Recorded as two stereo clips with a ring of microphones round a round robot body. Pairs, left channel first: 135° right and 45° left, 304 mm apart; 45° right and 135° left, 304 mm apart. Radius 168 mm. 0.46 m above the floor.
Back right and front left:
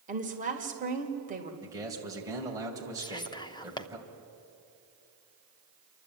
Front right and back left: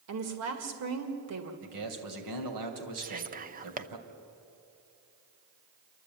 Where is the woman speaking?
105° left, 2 m.